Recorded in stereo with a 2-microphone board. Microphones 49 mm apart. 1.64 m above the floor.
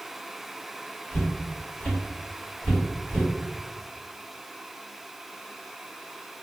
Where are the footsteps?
25° left (ahead or behind), 1.7 m; by 3.3 s 5° left (ahead or behind), 2.0 m.